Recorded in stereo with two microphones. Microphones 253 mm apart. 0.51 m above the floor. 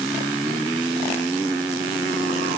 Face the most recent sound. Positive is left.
No sound to turn to.